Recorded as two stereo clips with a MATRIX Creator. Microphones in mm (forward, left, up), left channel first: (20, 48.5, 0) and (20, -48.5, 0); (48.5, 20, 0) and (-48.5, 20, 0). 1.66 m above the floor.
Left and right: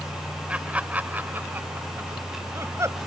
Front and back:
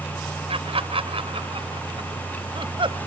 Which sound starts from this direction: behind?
Laughter, at 0.5 s.